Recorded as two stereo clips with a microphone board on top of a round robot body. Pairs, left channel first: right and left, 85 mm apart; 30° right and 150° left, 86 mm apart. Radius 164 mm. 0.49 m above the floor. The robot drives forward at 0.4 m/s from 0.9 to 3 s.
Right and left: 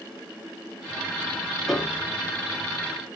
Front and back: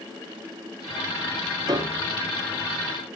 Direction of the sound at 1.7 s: 175° right.